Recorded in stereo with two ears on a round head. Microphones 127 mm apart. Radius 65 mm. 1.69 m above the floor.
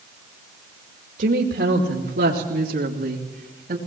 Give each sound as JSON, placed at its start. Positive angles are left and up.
{"t": 1.2, "sound": "a woman speaking", "side_deg": -80, "distance_m": 2.5}